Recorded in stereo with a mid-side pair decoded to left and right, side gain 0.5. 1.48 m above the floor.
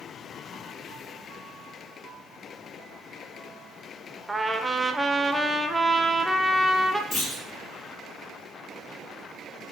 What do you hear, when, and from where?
4.3 s a trumpet: 10° right, 0.6 m
7.1 s a clunk: 55° left, 2.0 m